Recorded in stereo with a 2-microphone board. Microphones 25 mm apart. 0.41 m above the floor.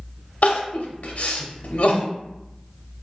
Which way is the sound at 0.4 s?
70° left (ahead or behind).